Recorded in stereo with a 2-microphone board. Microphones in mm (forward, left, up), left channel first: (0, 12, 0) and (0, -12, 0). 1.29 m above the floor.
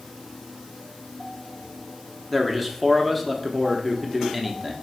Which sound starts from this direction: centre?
A man speaking, at 2.3 s.